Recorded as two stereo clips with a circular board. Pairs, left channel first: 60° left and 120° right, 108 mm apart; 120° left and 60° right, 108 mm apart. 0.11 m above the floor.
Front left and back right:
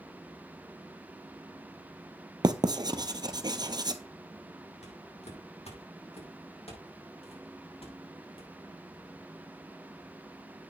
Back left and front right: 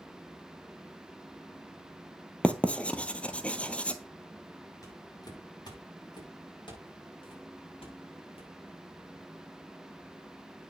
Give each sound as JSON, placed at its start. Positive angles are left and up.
{"t": 2.4, "sound": "writing", "azimuth_deg": -165, "distance_m": 0.9}
{"t": 4.8, "sound": "footsteps", "azimuth_deg": 65, "distance_m": 6.0}